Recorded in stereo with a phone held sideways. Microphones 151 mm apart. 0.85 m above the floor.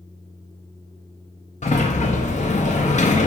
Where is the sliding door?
50° left (ahead or behind), 0.6 m.